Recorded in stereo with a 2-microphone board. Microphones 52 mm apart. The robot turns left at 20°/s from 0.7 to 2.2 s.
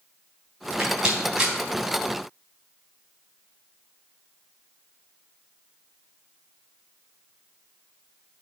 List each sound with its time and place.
0.8 s a rattle: 25° right (ahead or behind), 3 m; by 1.5 s 10° right (ahead or behind), 3 m